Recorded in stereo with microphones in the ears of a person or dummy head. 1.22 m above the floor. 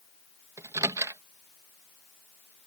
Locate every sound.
0.6 s a microwave: 15° right (ahead or behind)